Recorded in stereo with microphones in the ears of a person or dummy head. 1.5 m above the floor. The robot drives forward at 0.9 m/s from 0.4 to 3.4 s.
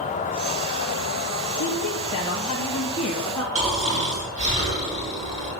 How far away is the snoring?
About 6 m.